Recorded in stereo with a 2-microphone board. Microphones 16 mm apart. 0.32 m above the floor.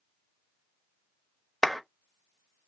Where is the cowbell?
I don't hear a cowbell.